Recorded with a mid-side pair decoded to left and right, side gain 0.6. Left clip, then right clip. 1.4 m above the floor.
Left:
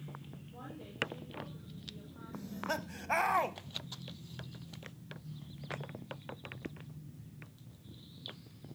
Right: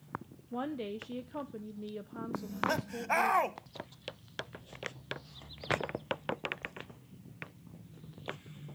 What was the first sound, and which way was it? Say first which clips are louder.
A woman speaking: right 13 dB; 70° right.